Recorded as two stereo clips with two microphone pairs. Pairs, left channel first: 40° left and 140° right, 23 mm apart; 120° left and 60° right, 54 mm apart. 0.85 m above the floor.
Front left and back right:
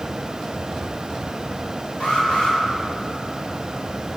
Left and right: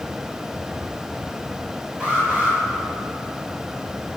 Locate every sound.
2.0 s an alarm: 15° left, 9 m